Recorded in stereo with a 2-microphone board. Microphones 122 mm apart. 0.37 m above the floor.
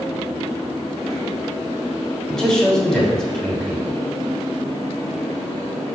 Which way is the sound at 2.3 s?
5° left (ahead or behind).